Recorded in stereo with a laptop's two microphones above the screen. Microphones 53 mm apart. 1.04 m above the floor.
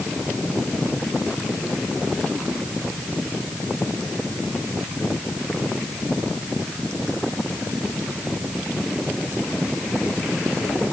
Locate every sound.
Only background noise.